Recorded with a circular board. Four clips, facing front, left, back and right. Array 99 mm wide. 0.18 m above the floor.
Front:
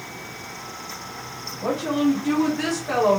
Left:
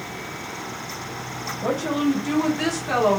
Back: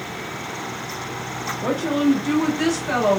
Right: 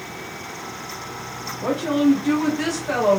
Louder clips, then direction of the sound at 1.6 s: Right 4 dB, back 1 dB; 70° right.